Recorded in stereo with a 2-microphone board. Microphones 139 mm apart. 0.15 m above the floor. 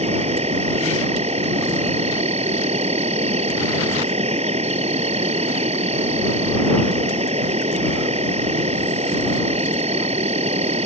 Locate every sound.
0.0 s an insect: 50° right (ahead or behind)